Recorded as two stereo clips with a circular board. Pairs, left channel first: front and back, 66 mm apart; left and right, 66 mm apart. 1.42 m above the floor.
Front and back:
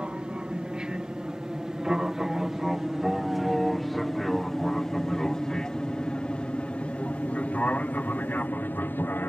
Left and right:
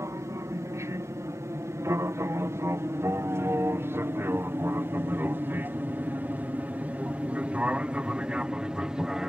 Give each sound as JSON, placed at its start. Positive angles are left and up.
{"t": 0.0, "sound": "an aircraft", "azimuth_deg": -110}